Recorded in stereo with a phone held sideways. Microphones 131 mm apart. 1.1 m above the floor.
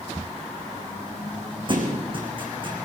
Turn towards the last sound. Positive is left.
turn(degrees=-40)  # may be behind; listen again after turning